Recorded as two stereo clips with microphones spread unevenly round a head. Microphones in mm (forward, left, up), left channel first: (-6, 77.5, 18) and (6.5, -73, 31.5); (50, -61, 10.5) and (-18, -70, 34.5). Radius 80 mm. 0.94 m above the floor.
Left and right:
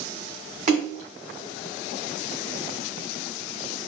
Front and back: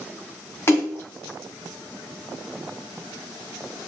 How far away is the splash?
About 1.1 m.